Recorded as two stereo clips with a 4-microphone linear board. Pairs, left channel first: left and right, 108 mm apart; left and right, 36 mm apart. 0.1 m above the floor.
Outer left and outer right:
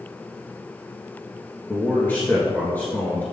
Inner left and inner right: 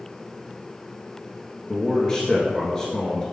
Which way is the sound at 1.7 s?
15° left (ahead or behind).